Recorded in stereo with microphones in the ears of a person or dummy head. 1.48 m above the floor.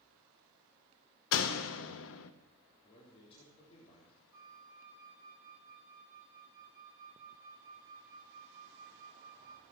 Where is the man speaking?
30° left (ahead or behind), 3.5 m.